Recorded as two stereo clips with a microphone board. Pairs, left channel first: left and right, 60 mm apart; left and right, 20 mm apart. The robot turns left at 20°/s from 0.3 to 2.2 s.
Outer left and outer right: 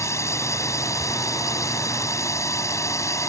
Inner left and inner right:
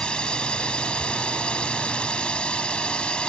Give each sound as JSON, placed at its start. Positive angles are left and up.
{"t": 0.0, "sound": "a drone", "azimuth_deg": 115}